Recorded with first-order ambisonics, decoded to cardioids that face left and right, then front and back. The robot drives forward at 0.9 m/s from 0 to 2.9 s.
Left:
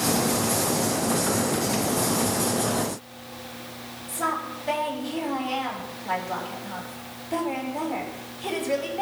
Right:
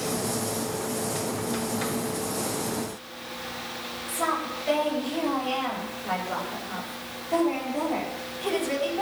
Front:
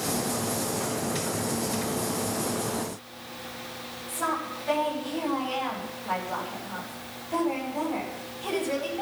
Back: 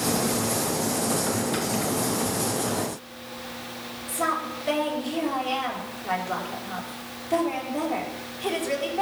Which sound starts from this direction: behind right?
A woman speaking, at 4.1 s.